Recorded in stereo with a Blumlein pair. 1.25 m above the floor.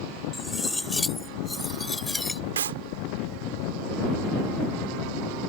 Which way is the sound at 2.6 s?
65° right.